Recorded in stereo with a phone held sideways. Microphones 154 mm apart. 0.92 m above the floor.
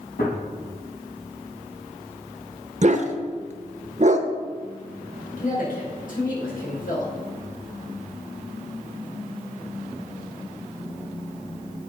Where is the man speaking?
65° left (ahead or behind), 4 m.